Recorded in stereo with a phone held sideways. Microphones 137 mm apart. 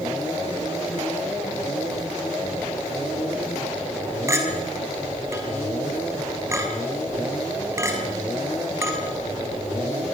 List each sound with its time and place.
4.3 s a clink: 20° right (ahead or behind), 4.5 m